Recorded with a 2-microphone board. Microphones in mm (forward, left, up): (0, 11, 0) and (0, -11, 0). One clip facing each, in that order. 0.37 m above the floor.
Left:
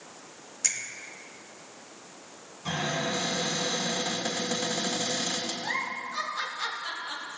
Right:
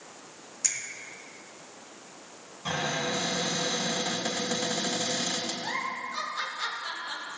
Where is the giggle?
20° left (ahead or behind), 1.7 m.